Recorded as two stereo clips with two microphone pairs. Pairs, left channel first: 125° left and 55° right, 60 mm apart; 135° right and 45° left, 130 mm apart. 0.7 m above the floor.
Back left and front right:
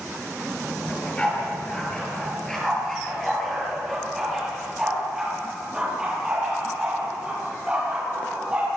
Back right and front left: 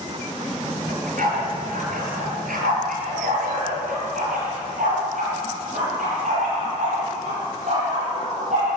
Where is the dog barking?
55° left, 5.5 m; by 8.8 s 15° left, 11 m.